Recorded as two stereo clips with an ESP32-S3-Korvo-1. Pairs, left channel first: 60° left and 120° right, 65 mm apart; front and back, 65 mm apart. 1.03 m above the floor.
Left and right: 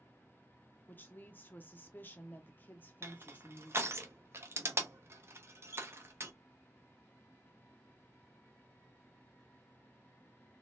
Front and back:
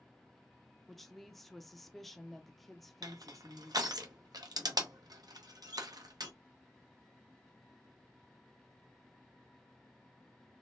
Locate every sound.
0.9 s a woman speaking: 85° left, 0.7 m
3.0 s crushing: 170° right, 0.7 m